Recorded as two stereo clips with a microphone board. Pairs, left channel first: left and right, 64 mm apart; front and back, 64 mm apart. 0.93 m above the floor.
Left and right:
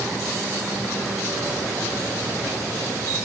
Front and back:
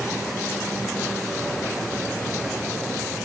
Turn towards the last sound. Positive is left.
No sound to turn to.